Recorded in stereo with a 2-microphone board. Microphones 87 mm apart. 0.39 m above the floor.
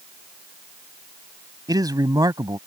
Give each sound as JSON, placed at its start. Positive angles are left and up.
{"t": 1.7, "sound": "a man speaking", "side_deg": -50}